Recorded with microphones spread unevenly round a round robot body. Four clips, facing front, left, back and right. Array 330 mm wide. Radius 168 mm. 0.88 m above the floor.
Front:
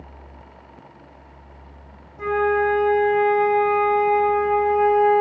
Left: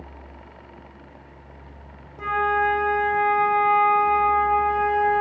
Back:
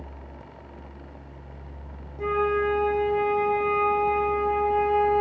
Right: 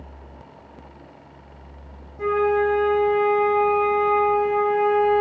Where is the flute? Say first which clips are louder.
Right 2 dB, front 4 dB; 25° left, 0.9 m.